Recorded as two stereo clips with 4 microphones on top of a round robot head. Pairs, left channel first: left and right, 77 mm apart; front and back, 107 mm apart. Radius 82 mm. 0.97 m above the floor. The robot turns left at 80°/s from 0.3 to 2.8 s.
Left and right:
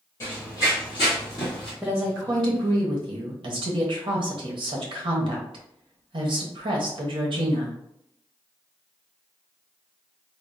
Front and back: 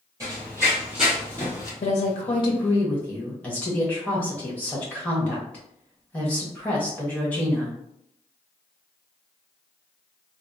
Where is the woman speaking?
Straight ahead, 0.9 m; by 7.8 s 80° right, 0.9 m.